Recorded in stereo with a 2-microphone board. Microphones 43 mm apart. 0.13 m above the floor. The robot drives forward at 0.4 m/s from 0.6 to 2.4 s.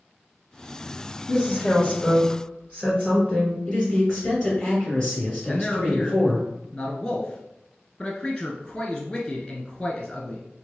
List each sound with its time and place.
1.3 s a woman speaking: 30° left (ahead or behind), 1.7 m
3.6 s a man speaking: 20° left (ahead or behind), 1.9 m
5.5 s a man speaking: 15° left (ahead or behind), 1.1 m